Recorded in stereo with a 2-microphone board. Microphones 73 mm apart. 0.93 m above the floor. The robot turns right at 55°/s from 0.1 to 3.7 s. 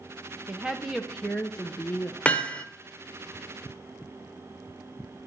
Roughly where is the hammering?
Centre.